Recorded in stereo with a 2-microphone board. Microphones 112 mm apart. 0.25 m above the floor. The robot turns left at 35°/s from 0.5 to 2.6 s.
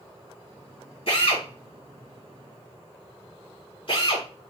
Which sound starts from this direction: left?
A drill, at 1.1 s.